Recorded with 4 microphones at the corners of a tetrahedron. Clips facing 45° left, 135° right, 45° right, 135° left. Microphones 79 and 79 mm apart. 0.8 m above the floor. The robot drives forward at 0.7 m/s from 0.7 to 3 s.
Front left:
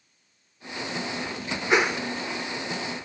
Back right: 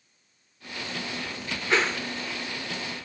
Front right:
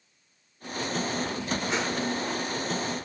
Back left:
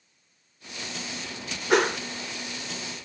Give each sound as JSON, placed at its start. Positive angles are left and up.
{"t": 1.7, "sound": "a whoosh", "azimuth_deg": 115, "distance_m": 1.0}